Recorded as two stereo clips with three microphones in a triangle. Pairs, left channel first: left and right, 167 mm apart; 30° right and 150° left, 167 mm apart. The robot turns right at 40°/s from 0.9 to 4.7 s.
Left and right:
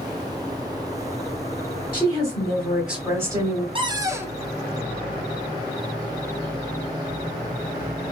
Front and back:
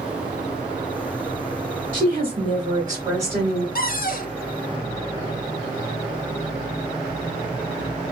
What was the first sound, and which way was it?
A woman speaking, 155° left.